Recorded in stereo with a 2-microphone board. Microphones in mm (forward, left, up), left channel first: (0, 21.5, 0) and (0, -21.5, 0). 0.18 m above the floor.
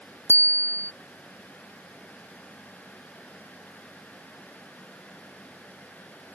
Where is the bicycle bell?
80° right.